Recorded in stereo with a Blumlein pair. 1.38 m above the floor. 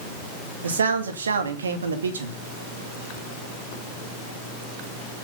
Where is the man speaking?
70° right, 2.5 m.